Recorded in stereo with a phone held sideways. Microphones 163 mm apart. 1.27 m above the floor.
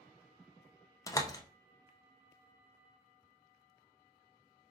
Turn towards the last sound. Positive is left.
turn(degrees=20)  # may be behind; listen again after turning